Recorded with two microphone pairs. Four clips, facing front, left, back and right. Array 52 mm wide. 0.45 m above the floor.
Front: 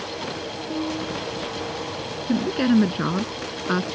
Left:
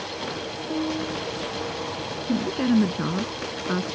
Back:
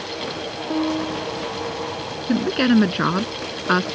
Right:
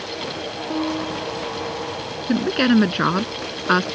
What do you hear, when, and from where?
0.7 s a piano: 145° right
2.3 s a woman speaking: 120° right